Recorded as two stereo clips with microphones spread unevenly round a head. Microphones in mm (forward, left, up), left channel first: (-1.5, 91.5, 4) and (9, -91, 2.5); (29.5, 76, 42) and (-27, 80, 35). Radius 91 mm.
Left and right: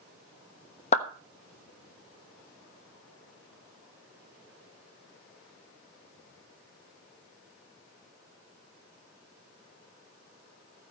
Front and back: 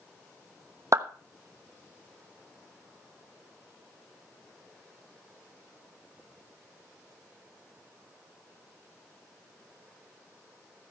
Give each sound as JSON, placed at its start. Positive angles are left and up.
{"t": 0.9, "sound": "a clap", "azimuth_deg": 150, "distance_m": 1.2}